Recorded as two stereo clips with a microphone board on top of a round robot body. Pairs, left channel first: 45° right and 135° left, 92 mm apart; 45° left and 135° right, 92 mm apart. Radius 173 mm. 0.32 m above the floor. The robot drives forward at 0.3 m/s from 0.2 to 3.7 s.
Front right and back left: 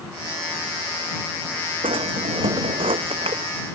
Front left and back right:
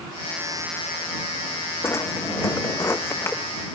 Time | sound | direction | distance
1.8 | a drawer | 110° left | ?